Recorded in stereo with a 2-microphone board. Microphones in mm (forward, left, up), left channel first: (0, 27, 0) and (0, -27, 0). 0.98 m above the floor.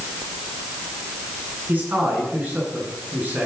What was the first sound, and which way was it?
A man speaking, 40° right (ahead or behind).